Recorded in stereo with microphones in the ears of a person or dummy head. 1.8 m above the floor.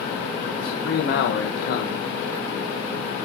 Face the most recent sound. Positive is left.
turn(degrees=65)  # may be behind; listen again after turning